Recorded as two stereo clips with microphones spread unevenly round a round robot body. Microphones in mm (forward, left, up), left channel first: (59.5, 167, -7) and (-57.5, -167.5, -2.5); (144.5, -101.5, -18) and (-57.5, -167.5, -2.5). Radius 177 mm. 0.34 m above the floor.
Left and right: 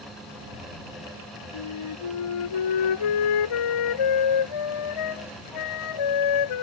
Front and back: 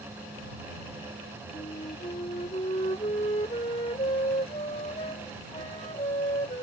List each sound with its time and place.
1.5 s a flute: 90° left